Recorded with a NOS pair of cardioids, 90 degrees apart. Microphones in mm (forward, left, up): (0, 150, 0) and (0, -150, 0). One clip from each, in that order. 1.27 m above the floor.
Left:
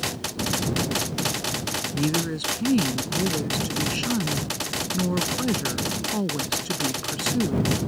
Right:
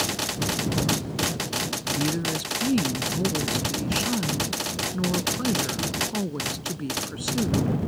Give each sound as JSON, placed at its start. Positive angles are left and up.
{"t": 1.9, "sound": "a woman speaking", "azimuth_deg": 15}